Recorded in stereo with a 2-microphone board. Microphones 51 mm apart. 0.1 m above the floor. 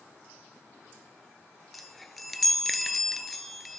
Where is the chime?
Centre (ahead or behind), 0.7 m.